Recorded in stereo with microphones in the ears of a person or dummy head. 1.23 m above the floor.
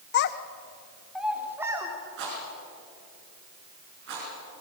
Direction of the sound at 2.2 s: 65° right (ahead or behind).